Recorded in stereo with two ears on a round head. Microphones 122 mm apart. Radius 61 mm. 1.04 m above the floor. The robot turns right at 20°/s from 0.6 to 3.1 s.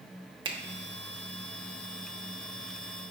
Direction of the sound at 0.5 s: 35° right (ahead or behind).